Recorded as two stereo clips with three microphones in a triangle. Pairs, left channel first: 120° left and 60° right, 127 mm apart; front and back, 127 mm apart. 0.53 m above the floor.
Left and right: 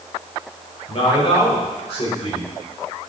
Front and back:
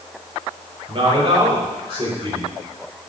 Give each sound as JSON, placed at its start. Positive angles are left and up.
{"t": 0.9, "sound": "a man speaking", "azimuth_deg": 150, "distance_m": 3.0}